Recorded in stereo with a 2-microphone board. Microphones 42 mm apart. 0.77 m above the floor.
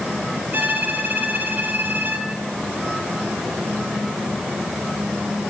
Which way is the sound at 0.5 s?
55° right (ahead or behind).